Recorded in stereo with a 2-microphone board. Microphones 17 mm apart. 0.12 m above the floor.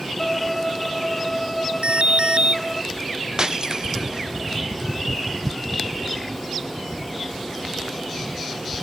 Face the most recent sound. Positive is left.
turn(degrees=-40)  # may be behind; listen again after turning